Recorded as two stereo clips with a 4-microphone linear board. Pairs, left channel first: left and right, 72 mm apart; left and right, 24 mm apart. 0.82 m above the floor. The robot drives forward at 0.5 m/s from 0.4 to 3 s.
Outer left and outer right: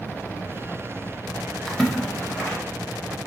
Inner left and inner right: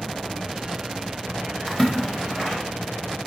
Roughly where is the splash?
Centre.